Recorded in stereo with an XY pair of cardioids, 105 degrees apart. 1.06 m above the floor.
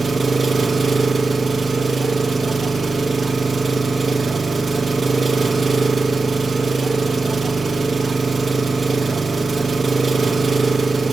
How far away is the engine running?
About 0.8 m.